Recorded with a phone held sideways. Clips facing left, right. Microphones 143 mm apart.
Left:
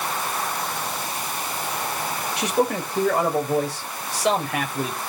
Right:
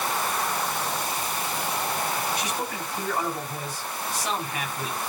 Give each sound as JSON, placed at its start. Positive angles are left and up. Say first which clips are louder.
{"t": 2.4, "sound": "a man speaking", "louder": "left 8 dB", "side_deg": 75, "distance_m": 5.0}